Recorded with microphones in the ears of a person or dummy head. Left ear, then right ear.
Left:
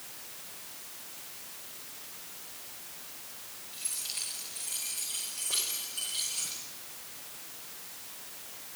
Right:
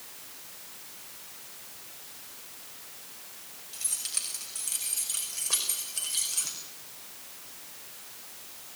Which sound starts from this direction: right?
Keys jangling, at 3.7 s.